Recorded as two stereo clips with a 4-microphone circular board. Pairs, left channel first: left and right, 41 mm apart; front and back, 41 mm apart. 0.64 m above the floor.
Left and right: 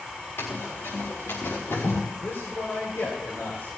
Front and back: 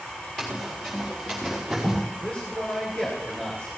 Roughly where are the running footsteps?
Left.